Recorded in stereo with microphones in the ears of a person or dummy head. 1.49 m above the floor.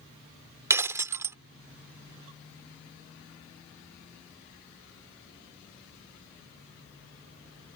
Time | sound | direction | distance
0.7 | breaking glass | 10° right (ahead or behind) | ?